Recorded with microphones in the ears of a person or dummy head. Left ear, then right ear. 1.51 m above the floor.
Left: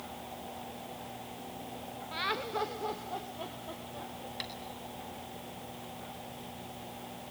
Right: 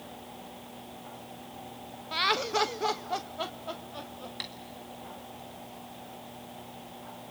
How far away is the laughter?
About 0.8 m.